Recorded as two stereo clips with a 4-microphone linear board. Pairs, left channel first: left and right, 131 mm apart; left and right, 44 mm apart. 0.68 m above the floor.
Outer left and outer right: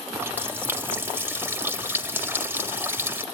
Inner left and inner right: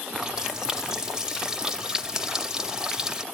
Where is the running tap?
15° right (ahead or behind), 1.7 m.